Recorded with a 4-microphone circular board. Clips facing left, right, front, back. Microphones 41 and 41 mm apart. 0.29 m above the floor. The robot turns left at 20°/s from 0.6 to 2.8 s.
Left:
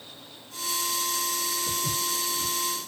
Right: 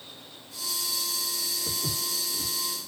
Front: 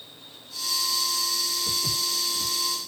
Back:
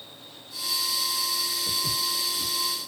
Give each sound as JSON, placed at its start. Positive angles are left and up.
{"t": 1.7, "sound": "footsteps", "azimuth_deg": -70, "distance_m": 1.2}